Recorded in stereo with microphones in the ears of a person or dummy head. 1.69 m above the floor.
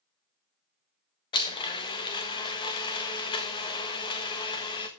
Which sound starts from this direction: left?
A blender, at 1.3 s.